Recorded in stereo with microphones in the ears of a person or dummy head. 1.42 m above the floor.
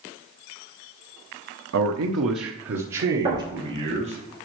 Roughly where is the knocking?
Right.